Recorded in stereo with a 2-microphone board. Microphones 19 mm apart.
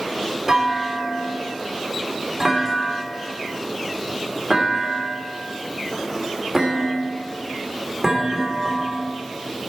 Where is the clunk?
20° right (ahead or behind), 2.5 m.